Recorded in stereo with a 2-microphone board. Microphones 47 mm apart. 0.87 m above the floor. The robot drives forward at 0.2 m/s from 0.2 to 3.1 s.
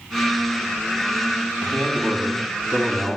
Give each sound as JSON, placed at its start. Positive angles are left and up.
{"t": 1.6, "sound": "a man speaking", "side_deg": 35, "distance_m": 6.5}